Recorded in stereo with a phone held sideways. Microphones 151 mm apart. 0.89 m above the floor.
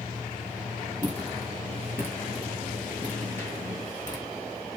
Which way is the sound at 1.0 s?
30° right (ahead or behind).